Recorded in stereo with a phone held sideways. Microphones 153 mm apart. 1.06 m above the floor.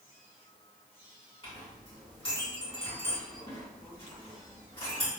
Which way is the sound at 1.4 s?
35° left (ahead or behind).